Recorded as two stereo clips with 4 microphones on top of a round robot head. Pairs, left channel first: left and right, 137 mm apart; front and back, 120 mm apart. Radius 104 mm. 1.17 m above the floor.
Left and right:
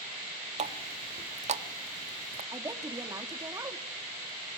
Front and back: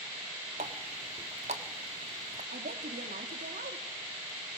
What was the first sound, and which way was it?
A running tap, 125° right.